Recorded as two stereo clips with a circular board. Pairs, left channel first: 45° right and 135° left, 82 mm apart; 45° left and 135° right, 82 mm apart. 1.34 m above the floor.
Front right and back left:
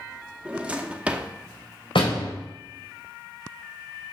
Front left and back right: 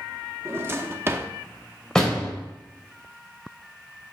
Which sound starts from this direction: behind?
A drawer, at 0.5 s.